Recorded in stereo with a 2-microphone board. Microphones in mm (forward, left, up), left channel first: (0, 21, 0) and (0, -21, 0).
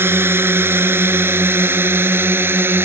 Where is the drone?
70° right (ahead or behind); by 2.9 s 65° right (ahead or behind).